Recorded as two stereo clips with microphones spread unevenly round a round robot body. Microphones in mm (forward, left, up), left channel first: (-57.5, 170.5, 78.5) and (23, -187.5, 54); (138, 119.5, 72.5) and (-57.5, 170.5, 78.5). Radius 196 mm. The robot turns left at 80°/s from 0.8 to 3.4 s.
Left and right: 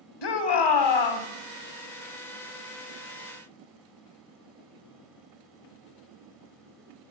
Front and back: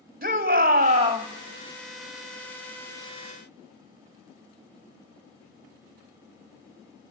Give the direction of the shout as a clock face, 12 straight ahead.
8 o'clock.